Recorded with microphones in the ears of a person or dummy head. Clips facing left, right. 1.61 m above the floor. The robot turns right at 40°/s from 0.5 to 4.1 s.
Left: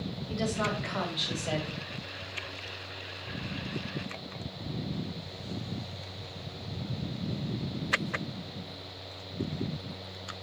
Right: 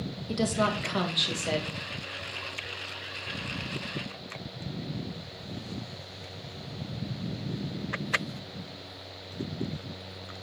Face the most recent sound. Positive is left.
turn(degrees=80)